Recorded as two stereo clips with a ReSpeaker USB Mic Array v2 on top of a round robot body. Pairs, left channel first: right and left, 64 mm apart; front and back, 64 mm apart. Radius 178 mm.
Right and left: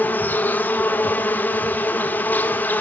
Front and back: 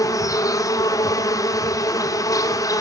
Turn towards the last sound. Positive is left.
turn(degrees=-30)